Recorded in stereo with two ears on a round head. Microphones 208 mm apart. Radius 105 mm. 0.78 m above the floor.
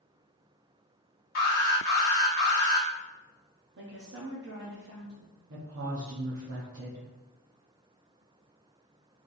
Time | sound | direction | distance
1.4 | an alarm | 45° left (ahead or behind) | 1.3 m
3.8 | a woman speaking | 50° right (ahead or behind) | 0.9 m
5.5 | a woman speaking | 55° right (ahead or behind) | 0.9 m